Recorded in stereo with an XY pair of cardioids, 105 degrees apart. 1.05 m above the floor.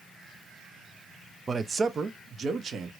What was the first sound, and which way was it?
A man speaking, 30° right.